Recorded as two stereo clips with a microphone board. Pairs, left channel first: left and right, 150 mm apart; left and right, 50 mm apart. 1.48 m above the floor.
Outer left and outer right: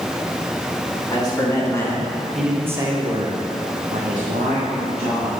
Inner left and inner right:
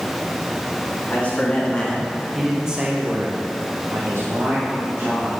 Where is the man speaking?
30° left (ahead or behind), 2.5 m; by 5.3 s 80° right, 3 m.